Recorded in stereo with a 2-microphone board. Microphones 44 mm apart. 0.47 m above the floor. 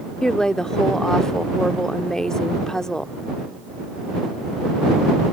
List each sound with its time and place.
0.2 s a woman speaking: 15° left (ahead or behind)